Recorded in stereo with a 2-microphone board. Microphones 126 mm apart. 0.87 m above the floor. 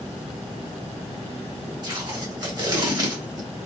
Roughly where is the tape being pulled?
Right.